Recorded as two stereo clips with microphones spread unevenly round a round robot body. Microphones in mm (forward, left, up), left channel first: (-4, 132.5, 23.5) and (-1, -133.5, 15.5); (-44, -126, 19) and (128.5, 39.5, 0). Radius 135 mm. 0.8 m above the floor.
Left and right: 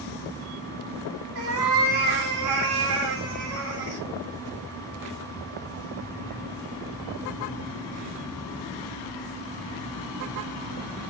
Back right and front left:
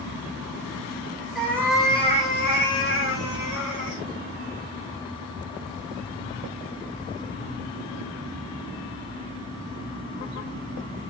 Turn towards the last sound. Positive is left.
turn(degrees=-140)